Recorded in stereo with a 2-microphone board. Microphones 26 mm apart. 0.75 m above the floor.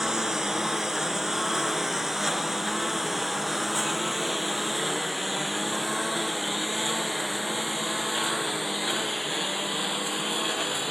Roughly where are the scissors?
I don't hear scissors.